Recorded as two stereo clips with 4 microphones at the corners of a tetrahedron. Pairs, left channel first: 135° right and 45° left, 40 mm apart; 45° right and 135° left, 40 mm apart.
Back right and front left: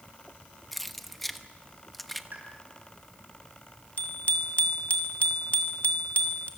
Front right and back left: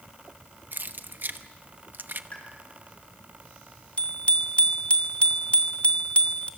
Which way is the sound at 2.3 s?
5° left.